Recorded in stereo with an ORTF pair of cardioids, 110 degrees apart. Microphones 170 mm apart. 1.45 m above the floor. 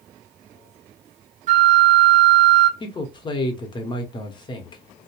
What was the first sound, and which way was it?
A flute, 50° right.